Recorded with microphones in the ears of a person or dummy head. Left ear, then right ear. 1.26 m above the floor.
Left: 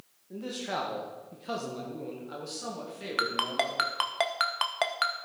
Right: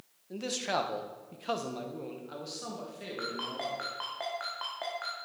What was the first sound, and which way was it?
A man speaking, 70° right (ahead or behind).